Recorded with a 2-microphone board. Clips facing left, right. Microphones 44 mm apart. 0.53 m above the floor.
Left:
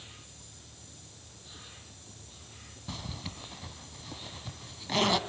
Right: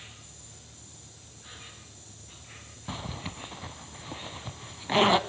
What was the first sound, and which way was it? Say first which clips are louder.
An insect: right 2 dB; 55° right (ahead or behind).